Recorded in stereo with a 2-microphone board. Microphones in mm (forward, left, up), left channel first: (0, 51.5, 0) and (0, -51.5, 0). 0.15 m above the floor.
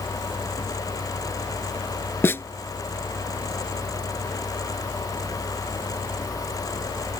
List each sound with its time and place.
2.2 s a snare drum: 20° left (ahead or behind)